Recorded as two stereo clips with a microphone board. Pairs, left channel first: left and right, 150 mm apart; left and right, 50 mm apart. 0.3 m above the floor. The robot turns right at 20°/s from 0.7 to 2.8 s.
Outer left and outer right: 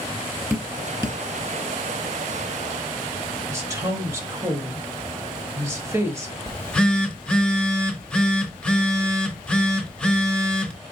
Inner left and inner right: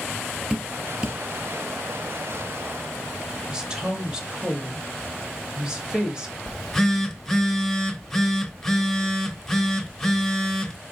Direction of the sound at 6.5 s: 5° left (ahead or behind).